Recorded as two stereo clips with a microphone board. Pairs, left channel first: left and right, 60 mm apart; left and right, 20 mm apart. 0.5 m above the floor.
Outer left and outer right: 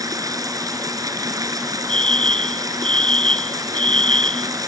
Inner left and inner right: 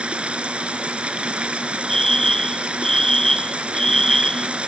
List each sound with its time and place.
0.0 s running water: 80° right
1.9 s a fire alarm: 20° left (ahead or behind)